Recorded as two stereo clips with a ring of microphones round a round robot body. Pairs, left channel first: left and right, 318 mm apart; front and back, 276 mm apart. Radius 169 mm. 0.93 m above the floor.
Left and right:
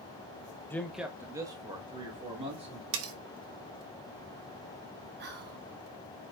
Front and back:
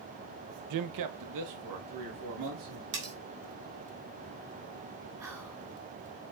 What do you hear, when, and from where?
0.7 s a man speaking: 175° left, 0.6 m; by 2.8 s 160° right, 2 m
2.9 s cutlery clinking: 120° right, 0.9 m
5.2 s whispering: 110° right, 0.9 m